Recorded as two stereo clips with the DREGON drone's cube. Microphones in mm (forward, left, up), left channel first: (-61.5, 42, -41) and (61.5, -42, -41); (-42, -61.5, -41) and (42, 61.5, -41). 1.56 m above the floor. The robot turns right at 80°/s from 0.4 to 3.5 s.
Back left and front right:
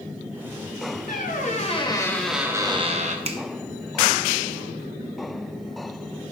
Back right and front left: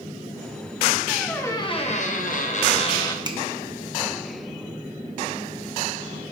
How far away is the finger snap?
About 0.6 m.